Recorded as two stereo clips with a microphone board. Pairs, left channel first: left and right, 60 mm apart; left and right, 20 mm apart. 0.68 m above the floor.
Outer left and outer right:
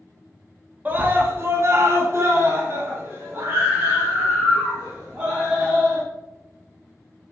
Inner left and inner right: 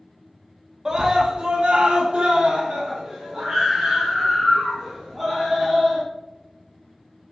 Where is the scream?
30° right (ahead or behind), 0.9 m; by 6.0 s 25° right (ahead or behind), 2.5 m.